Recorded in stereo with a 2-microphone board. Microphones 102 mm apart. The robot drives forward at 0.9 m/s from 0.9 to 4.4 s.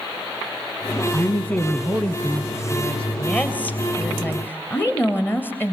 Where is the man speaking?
15° left (ahead or behind), 1.1 m; by 3.1 s 10° left (ahead or behind), 2.5 m.